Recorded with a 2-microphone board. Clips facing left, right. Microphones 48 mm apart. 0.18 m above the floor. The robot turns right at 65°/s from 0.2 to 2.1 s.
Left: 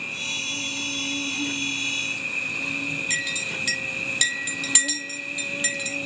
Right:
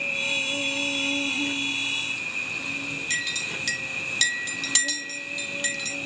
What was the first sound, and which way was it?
An insect, 100° right.